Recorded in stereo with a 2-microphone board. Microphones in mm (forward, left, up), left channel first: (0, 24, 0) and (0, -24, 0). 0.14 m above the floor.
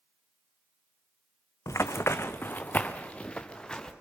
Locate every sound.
1.7 s running footsteps: 85° left, 0.7 m; by 3.9 s 15° left (ahead or behind), 1.7 m